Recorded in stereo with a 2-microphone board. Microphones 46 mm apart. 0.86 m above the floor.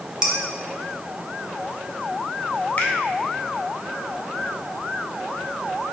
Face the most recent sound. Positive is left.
turn(degrees=40)  # may be behind; listen again after turning